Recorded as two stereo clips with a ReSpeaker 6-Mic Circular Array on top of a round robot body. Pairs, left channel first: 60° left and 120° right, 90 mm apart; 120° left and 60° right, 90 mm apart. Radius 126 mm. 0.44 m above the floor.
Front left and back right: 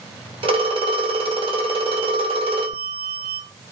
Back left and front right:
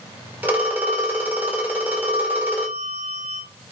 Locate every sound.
0.4 s a phone ringing: 130° right, 1.1 m